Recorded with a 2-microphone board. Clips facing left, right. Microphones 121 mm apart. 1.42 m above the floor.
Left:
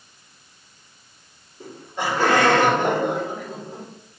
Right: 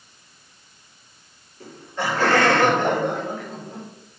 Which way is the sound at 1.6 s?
15° left (ahead or behind).